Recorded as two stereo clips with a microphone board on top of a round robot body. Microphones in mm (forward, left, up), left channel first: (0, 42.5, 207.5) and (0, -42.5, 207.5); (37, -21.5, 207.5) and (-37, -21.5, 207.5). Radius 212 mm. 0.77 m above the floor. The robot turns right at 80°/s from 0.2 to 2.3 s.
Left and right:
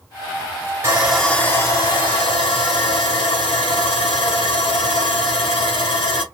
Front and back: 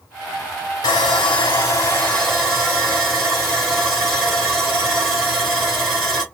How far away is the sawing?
About 1.6 m.